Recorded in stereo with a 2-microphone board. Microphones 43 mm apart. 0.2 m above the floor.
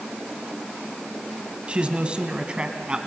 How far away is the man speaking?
About 1.4 m.